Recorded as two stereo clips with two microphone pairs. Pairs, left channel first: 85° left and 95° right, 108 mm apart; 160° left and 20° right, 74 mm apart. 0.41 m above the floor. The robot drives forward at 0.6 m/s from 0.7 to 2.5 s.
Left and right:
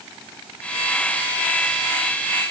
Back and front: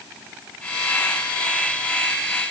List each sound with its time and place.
Only background noise.